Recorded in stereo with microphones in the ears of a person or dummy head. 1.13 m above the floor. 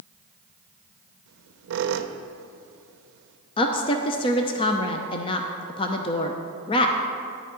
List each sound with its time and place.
1.3 s a squeak: 70° right (ahead or behind), 0.8 m
3.6 s a woman speaking: 25° left (ahead or behind), 0.7 m